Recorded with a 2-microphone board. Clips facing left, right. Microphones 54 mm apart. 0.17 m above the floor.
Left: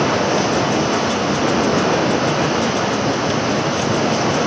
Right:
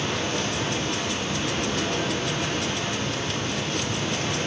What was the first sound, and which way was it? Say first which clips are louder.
Running water: left 11 dB; 70° left (ahead or behind).